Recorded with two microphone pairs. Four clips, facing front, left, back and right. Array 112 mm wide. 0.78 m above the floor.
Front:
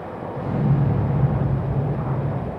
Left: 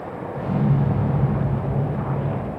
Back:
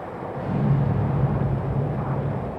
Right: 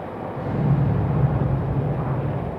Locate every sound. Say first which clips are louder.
0.3 s an explosion: left 2 dB, front 2 dB; 110° left, 1.4 m